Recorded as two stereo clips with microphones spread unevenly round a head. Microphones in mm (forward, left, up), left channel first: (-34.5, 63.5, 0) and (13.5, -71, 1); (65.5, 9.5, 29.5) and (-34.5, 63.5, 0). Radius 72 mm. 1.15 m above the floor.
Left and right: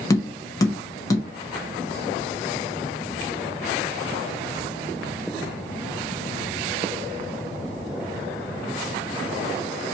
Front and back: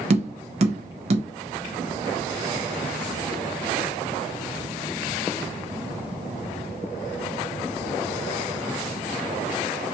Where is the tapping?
175° left, 1.2 m.